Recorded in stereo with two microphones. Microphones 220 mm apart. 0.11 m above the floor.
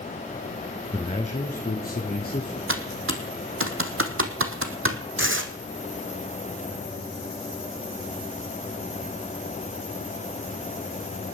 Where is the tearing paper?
65° right (ahead or behind), 1.3 m.